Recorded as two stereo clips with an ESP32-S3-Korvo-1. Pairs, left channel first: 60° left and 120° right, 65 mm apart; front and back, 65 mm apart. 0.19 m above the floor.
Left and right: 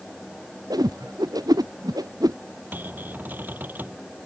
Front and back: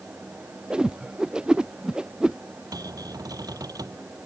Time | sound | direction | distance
0.7 | a whoosh | 105° right | ?
2.7 | a cupboard door | straight behind | ?